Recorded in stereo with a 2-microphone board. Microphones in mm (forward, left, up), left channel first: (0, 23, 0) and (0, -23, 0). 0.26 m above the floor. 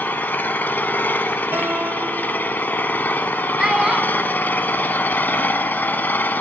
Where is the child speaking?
15° right (ahead or behind), 1.0 m.